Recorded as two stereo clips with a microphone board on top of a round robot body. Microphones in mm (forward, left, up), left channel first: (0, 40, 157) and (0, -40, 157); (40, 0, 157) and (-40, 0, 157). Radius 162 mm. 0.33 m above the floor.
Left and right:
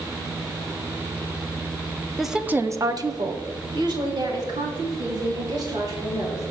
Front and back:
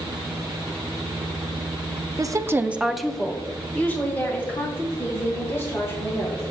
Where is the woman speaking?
Straight behind, 1.1 m; by 6.5 s 60° right, 6 m.